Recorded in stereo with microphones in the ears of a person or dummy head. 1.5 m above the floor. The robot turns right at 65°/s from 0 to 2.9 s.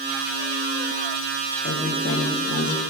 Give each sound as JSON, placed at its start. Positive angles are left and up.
{"t": 1.6, "sound": "a woman speaking", "azimuth_deg": 60, "distance_m": 1.5}